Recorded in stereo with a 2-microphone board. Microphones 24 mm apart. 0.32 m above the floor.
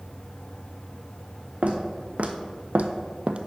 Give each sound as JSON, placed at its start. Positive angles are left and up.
{"t": 1.6, "sound": "footsteps", "side_deg": -65, "distance_m": 1.2}